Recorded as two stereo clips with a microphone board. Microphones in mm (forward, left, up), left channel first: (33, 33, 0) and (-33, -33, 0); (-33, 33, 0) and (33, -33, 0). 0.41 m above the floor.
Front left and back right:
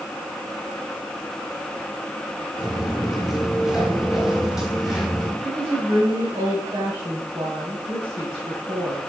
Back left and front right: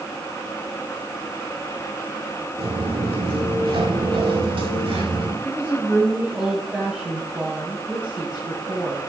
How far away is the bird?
I don't hear a bird.